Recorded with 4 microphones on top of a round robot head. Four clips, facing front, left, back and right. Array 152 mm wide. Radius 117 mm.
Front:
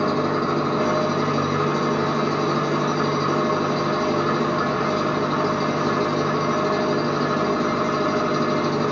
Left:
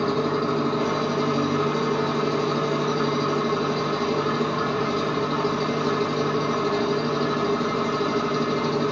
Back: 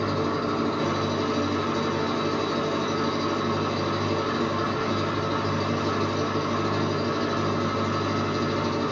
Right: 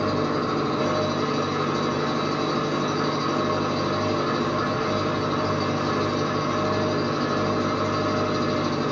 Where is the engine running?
5° left, 1.2 m.